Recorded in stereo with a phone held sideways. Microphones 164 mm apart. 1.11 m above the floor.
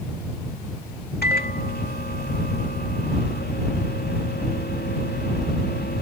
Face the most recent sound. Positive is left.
turn(degrees=80)